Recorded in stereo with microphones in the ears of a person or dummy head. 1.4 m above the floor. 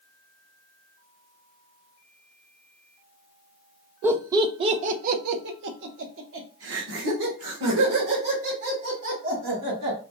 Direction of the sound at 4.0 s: 10° right (ahead or behind).